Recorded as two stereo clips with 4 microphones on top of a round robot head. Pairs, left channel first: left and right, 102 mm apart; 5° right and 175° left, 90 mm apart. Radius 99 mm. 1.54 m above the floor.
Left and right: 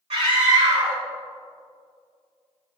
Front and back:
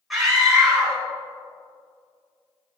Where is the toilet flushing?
No toilet flushing in this recording.